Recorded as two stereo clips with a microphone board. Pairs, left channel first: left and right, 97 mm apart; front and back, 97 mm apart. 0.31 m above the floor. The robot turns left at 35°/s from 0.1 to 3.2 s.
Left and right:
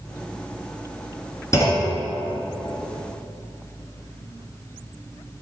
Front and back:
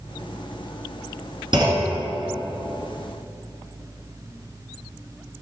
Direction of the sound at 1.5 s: 145° left.